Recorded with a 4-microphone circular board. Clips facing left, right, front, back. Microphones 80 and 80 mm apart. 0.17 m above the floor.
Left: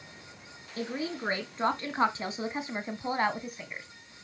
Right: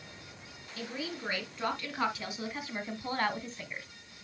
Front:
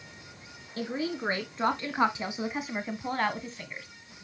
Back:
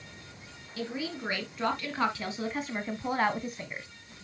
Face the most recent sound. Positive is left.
turn(degrees=170)